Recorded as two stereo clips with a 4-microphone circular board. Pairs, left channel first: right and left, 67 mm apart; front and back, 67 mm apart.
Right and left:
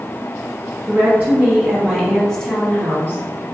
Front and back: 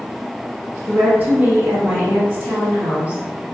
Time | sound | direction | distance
0.9 | a woman speaking | 130° left | 1.8 m